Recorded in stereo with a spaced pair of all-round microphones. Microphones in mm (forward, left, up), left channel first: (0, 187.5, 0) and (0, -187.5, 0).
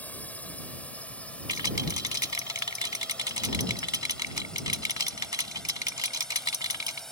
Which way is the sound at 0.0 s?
5° left (ahead or behind).